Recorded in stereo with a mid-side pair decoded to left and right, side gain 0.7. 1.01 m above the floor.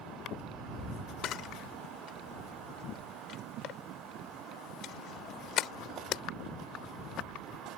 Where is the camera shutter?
50° left.